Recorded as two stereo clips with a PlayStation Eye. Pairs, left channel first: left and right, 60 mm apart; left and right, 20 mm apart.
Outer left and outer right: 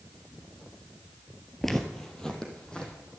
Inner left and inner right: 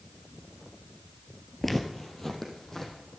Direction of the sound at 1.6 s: 5° left (ahead or behind).